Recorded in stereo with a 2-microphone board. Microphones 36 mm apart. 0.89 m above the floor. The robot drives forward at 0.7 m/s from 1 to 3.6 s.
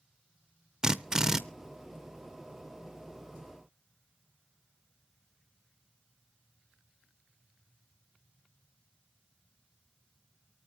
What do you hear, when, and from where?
0.8 s a drill: 20° right (ahead or behind), 0.6 m; by 1.4 s 10° right (ahead or behind), 0.8 m